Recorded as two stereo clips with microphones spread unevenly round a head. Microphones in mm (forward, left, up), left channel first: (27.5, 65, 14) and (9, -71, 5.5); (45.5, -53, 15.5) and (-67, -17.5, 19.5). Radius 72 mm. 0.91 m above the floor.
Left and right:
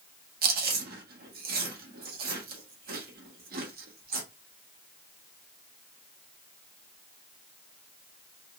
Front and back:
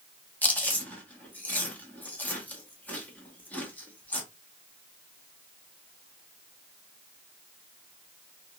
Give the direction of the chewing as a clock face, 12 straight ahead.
3 o'clock.